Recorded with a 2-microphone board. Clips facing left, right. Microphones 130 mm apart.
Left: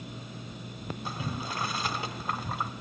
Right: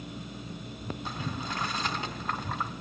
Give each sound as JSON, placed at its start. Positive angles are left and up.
{"t": 1.1, "sound": "boiling", "side_deg": 5, "distance_m": 1.5}